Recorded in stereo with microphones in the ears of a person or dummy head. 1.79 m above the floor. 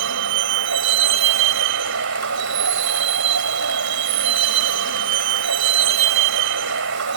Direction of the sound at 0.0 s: 70° right (ahead or behind).